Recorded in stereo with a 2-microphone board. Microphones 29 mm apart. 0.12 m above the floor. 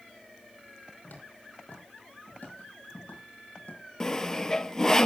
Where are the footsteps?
65° left (ahead or behind), 6 m; by 3.8 s 50° left (ahead or behind), 5 m.